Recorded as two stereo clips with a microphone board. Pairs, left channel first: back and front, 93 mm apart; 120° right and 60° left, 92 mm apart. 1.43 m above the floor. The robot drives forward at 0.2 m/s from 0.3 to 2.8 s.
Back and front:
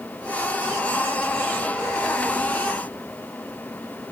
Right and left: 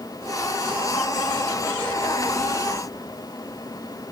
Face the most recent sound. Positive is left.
No sound to turn to.